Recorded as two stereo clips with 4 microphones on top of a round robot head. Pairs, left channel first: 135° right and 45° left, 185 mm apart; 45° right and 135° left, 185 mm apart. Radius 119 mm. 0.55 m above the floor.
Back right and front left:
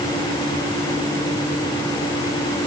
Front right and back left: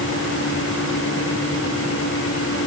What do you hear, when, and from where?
Only background noise.